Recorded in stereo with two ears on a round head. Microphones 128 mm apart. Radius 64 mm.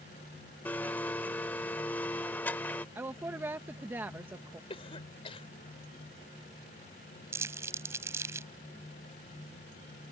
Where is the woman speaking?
15° right (ahead or behind).